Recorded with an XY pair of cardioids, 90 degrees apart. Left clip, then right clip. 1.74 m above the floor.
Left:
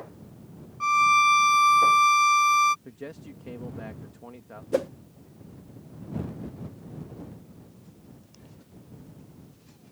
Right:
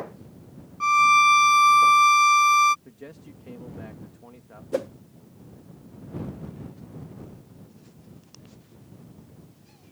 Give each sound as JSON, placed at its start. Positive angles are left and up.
{"t": 0.8, "sound": "a violin", "azimuth_deg": -20}
{"t": 2.9, "sound": "a man speaking", "azimuth_deg": 30}
{"t": 4.7, "sound": "a whoosh", "azimuth_deg": 15}